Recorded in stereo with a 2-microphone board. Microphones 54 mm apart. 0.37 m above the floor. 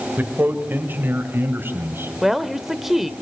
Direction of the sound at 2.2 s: 5° right (ahead or behind).